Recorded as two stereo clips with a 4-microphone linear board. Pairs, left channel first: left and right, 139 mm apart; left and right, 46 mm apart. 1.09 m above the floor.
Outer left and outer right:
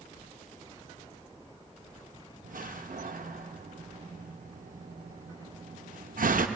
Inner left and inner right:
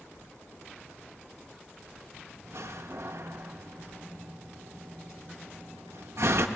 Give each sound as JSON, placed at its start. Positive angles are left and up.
{"t": 2.4, "sound": "a door slam", "side_deg": -65, "distance_m": 0.6}